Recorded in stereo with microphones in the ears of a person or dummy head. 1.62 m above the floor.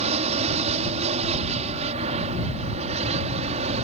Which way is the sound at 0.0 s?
25° right (ahead or behind).